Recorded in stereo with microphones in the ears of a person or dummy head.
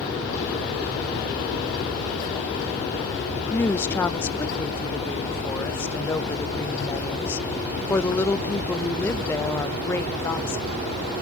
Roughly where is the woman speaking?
Centre.